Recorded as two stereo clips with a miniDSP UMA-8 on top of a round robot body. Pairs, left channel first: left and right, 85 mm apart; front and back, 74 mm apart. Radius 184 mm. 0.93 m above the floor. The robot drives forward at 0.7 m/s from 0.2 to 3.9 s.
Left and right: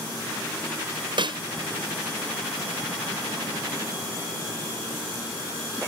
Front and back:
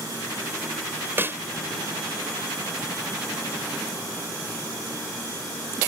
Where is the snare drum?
120° right.